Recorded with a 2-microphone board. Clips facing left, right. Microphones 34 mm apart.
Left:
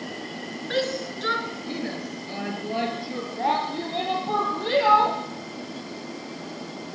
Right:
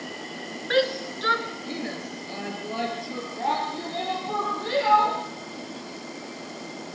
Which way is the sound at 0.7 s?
25° right (ahead or behind).